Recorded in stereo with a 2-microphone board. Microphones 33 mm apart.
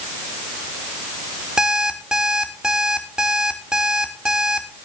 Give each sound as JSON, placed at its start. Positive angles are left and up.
{"t": 1.6, "sound": "an alarm clock", "side_deg": -20, "distance_m": 3.5}